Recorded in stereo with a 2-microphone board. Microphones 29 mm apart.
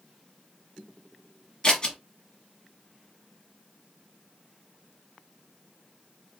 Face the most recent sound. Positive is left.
turn(degrees=25)  # may be behind; listen again after turning